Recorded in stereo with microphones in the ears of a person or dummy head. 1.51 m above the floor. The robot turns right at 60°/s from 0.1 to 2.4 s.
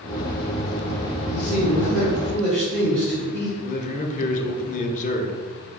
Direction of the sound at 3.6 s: 45° left (ahead or behind).